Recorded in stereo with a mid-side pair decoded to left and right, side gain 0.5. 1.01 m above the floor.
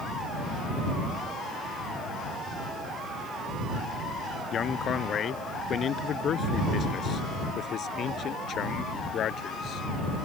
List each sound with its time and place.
4.5 s a man speaking: 45° left; by 10.3 s 55° left